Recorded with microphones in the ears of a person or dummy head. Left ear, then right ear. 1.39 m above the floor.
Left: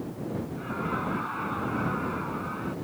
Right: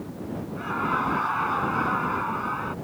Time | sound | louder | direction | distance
0.6 | laughter | right 8 dB | 40° right (ahead or behind) | ?